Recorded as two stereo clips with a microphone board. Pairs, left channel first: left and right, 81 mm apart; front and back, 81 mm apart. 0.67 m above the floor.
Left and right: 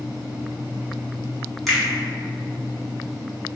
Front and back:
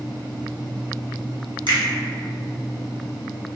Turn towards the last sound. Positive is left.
turn(degrees=180)